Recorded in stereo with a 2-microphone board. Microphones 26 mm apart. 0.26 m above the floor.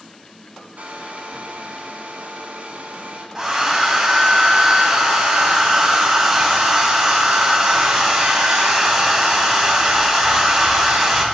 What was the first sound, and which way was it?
A hair dryer, 60° right (ahead or behind).